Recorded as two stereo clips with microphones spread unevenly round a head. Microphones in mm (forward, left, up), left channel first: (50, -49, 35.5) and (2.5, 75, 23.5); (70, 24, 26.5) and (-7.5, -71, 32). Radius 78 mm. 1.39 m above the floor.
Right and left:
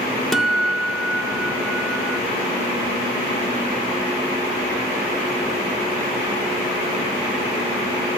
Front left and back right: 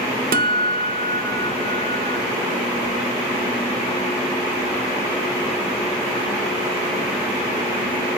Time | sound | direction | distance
0.3 | a guitar | 155° right | 0.5 m